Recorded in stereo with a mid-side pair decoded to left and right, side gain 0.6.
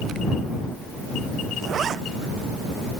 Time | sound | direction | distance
1.6 | a zipper | 40° right | ?